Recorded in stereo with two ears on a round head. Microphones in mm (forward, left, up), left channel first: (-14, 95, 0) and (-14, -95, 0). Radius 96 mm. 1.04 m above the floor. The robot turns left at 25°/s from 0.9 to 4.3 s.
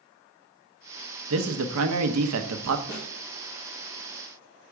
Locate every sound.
1.3 s a man speaking: 70° right, 0.7 m; by 2.8 s 105° right, 0.7 m
2.9 s a snare drum: 55° left (ahead or behind), 2 m; by 3.1 s 60° left (ahead or behind), 2 m